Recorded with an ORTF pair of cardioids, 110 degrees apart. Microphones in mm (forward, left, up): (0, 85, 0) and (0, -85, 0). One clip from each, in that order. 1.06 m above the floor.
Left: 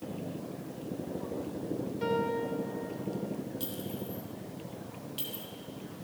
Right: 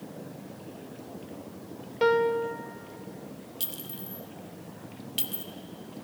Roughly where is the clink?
Ahead right.